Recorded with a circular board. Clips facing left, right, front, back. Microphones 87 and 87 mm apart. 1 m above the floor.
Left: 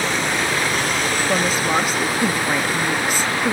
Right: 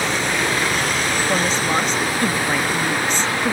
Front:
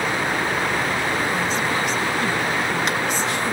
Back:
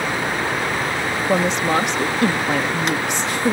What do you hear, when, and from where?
1.3 s a woman speaking: 170° left